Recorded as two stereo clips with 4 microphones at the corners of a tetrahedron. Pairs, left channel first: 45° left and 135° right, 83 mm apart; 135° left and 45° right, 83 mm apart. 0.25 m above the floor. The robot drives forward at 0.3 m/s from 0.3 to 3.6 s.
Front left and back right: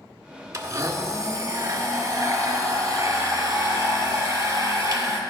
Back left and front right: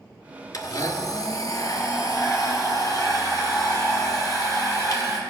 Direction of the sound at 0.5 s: 175° left.